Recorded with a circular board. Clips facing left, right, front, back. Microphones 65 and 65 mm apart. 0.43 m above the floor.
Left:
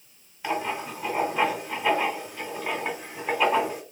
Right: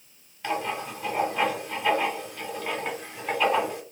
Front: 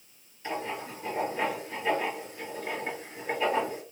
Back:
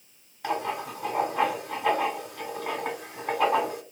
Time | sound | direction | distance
0.4 | writing | 170° left | 1.8 m